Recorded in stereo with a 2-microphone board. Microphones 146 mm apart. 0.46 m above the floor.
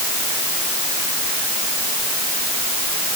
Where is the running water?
I don't hear running water.